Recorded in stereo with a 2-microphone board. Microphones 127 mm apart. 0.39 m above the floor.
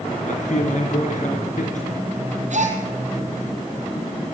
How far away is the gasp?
About 5.5 m.